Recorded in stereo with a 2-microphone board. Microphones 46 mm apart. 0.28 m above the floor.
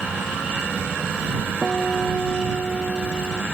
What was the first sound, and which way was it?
A guitar, centre (ahead or behind).